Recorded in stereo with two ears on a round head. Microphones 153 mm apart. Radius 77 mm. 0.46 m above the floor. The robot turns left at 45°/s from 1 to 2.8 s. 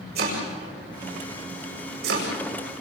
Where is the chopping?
60° right (ahead or behind), 8.5 m; by 2.8 s 35° right (ahead or behind), 8.5 m.